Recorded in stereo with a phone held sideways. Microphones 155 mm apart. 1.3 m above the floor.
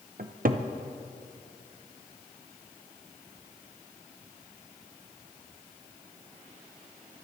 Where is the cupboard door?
65° right (ahead or behind), 0.6 m.